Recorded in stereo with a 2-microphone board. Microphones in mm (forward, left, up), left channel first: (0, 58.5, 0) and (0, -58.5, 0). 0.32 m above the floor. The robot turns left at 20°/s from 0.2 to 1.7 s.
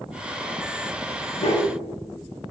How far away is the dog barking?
About 1.1 m.